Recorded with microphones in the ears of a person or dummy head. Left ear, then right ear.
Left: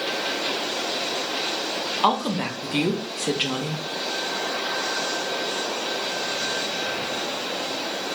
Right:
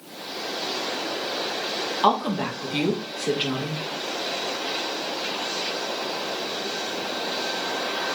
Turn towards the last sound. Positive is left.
turn(degrees=5)  # may be behind; listen again after turning